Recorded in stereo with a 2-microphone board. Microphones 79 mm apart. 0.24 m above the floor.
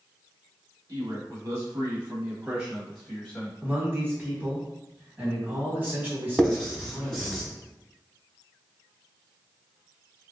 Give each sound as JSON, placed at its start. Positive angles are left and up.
{"t": 0.9, "sound": "a man speaking", "side_deg": -50, "distance_m": 1.5}
{"t": 3.6, "sound": "a man speaking", "side_deg": -25, "distance_m": 1.4}
{"t": 6.4, "sound": "writing", "side_deg": 5, "distance_m": 1.0}